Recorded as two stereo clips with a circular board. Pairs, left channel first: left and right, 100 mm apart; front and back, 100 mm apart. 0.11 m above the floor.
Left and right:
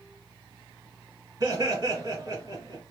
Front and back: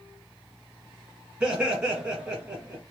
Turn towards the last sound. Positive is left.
turn(degrees=-105)